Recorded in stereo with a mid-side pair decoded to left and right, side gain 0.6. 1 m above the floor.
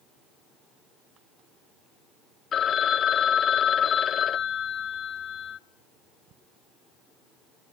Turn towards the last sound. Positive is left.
turn(degrees=45)